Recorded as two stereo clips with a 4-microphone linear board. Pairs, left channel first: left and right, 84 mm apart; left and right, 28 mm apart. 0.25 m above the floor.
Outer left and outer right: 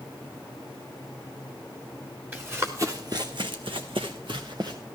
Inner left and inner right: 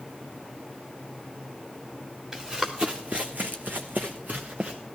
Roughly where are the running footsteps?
Right.